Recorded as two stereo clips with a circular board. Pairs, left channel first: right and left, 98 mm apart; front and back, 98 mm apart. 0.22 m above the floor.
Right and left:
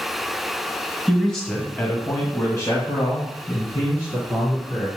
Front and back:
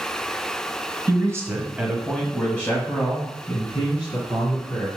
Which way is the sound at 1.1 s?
175° left.